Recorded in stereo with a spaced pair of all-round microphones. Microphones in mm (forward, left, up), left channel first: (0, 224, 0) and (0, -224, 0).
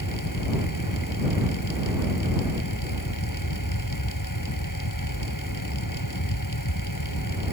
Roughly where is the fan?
Left.